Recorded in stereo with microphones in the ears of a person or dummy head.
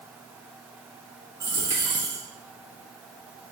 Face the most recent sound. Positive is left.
turn(degrees=-15)  # may be behind; listen again after turning